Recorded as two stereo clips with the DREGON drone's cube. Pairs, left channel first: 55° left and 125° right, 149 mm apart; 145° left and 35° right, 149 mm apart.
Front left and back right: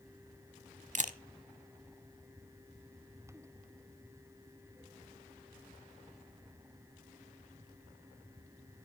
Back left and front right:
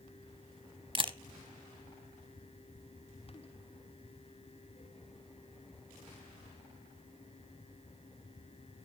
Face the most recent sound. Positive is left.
turn(degrees=-90)